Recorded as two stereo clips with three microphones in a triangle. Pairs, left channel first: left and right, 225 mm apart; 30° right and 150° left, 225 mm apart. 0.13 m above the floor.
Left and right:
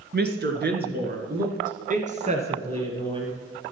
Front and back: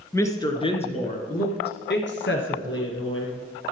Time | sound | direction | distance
0.1 | a woman speaking | 105° right | 2.5 m